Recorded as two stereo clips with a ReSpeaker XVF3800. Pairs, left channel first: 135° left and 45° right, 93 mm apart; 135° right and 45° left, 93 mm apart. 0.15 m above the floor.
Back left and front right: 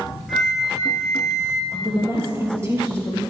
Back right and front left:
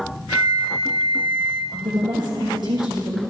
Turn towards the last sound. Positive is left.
turn(degrees=15)